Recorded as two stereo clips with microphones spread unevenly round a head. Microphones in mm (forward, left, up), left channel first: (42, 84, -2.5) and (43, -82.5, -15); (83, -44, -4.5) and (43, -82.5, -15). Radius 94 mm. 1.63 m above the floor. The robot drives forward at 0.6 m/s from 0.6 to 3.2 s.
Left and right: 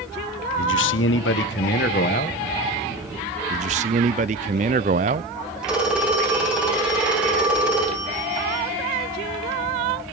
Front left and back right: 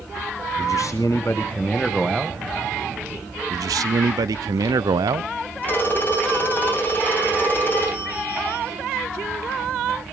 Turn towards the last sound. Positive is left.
turn(degrees=-5)